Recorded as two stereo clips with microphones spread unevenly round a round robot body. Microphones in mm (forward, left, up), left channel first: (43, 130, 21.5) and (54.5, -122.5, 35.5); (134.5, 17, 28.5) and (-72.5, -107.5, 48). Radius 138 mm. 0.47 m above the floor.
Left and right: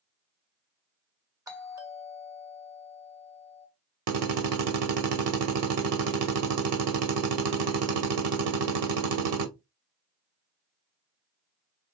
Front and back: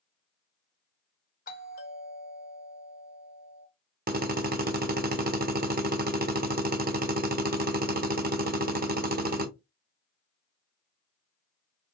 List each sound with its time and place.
1.5 s a doorbell: 10° right, 1.9 m
4.1 s a drill: 100° right, 1.0 m